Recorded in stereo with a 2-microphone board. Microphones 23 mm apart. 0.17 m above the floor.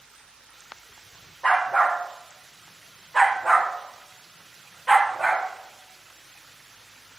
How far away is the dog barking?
About 2.5 m.